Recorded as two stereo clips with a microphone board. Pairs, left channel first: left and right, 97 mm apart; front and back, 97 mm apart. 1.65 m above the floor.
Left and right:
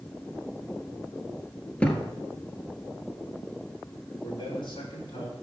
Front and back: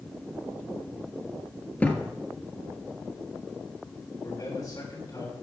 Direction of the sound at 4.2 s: 50° left.